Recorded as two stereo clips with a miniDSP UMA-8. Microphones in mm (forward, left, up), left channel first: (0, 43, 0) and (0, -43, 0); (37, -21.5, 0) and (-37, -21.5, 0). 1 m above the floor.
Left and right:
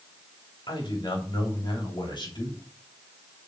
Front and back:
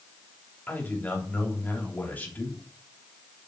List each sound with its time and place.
0.7 s a man speaking: 65° left, 3 m